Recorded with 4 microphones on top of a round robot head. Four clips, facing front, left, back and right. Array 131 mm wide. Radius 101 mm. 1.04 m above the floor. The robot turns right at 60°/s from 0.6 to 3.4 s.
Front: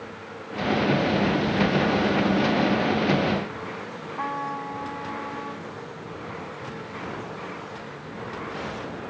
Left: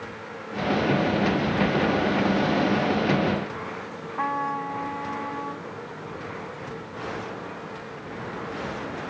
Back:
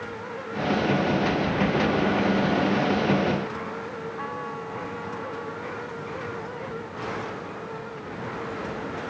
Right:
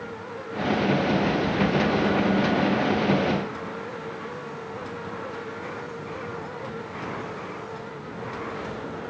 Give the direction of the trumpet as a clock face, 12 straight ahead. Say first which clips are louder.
Left 8 dB, front 3 dB; 10 o'clock.